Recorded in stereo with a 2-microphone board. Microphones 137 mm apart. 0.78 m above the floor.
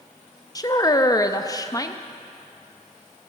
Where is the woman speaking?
25° left (ahead or behind), 0.7 m.